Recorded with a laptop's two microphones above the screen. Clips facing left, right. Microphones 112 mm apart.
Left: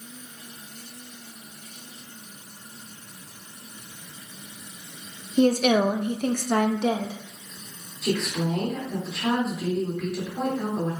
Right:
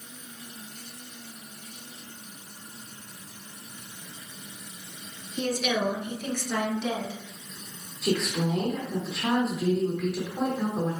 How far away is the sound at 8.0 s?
About 2.5 m.